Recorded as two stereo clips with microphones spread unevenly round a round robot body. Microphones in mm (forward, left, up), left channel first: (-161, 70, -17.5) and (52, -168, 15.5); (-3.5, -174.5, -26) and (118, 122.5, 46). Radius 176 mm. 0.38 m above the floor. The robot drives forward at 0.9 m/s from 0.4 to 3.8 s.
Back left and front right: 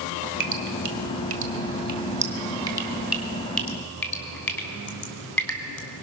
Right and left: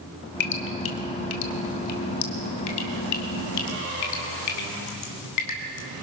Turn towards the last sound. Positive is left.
turn(degrees=-145)